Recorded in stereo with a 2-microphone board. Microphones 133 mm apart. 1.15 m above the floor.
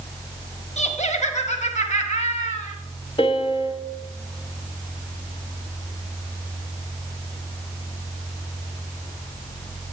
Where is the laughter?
60° left (ahead or behind), 1.3 m.